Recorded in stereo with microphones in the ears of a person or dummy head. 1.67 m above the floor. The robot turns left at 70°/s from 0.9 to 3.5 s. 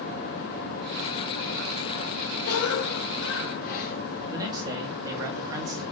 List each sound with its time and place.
2.5 s a cough: 125° left, 3 m; by 4.0 s 50° left, 3 m
4.3 s a man speaking: 20° right (ahead or behind), 3 m